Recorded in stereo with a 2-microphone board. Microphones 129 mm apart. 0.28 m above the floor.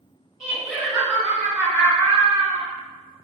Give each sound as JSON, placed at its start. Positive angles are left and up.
{"t": 0.4, "sound": "laughter", "side_deg": -5, "distance_m": 1.6}